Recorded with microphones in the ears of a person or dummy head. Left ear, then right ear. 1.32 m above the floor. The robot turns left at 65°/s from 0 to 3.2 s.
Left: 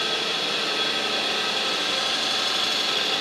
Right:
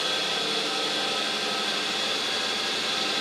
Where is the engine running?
150° right, 0.8 m; by 3.2 s straight ahead, 0.8 m.